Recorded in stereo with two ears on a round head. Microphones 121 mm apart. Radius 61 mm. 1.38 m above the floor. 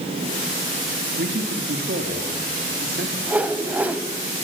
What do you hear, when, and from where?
1.2 s a man speaking: 85° right, 3 m; by 3.2 s 70° right (ahead or behind), 3.5 m
3.3 s a whoosh: 10° right (ahead or behind), 1.2 m